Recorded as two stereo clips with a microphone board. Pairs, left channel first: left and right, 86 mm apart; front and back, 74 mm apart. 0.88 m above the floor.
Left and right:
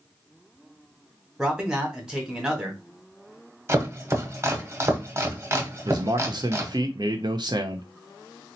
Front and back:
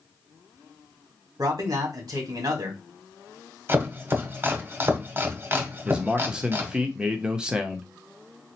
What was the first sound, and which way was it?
A man speaking, 170° right.